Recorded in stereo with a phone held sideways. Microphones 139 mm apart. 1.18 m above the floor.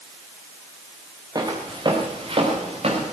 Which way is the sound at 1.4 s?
30° right (ahead or behind).